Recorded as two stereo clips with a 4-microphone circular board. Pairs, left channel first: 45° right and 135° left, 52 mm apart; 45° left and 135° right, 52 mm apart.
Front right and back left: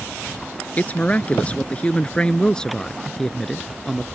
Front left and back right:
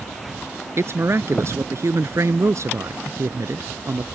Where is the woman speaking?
105° right; by 4.0 s 130° right.